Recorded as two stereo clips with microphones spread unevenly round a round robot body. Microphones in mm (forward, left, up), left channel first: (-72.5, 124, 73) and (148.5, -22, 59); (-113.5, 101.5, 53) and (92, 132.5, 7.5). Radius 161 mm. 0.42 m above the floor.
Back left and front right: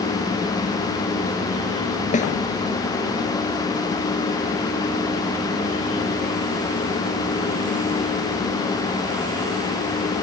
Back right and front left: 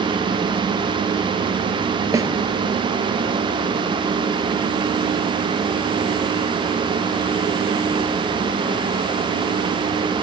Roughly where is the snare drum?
Left.